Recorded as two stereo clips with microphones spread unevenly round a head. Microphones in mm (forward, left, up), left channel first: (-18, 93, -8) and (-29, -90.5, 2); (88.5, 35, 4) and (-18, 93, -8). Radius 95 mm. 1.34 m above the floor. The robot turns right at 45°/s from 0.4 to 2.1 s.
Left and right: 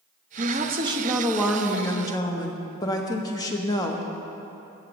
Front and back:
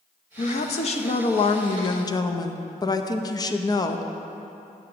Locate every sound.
0.4 s a woman speaking: 50° right, 0.5 m; by 4.1 s 25° left, 0.5 m